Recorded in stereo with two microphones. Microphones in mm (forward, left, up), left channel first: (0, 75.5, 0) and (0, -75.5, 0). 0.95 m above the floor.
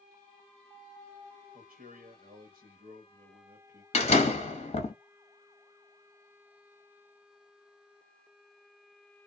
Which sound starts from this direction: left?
A door slam, at 3.9 s.